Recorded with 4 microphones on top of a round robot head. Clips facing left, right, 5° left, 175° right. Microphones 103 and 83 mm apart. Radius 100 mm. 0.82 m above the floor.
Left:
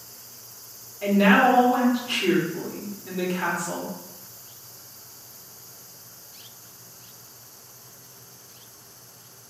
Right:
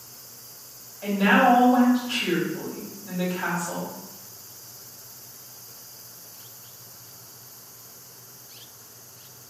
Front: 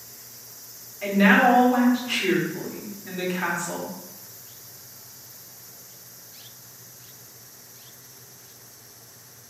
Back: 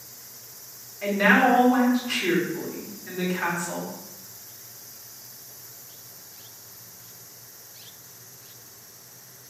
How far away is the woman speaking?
About 1.9 m.